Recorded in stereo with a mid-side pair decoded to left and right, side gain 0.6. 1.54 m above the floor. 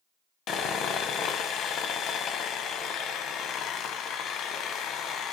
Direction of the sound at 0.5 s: 55° left.